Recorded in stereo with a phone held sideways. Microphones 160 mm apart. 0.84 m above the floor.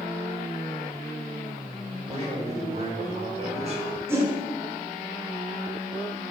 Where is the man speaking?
40° right (ahead or behind), 1.8 m.